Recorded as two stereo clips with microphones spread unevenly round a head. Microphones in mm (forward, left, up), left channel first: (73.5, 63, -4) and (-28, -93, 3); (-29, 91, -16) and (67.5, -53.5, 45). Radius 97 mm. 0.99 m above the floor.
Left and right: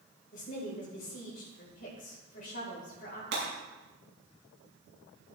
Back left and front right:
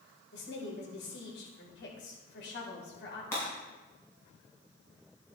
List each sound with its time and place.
0.3 s a woman speaking: 105° left, 4 m
3.3 s breaking glass: 155° right, 6 m